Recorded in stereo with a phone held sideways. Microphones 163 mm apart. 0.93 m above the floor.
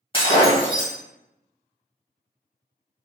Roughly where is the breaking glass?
Left.